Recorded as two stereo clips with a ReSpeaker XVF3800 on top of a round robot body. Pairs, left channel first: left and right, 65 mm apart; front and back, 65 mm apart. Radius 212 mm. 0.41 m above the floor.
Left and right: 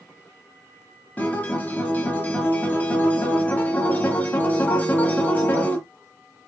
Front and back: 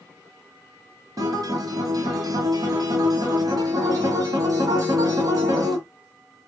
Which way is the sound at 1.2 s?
155° left.